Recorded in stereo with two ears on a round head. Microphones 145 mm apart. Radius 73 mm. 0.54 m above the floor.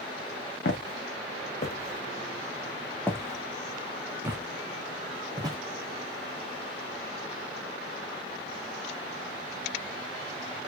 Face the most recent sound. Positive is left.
turn(degrees=-25)  # may be behind; listen again after turning